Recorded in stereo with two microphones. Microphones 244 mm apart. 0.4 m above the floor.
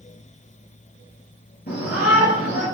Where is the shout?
45° left (ahead or behind), 4.5 m.